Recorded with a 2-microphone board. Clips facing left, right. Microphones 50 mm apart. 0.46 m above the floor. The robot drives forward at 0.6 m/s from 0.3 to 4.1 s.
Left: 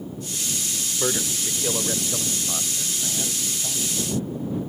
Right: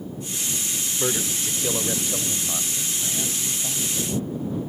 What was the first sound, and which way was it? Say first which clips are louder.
A man speaking: even; 5° left (ahead or behind).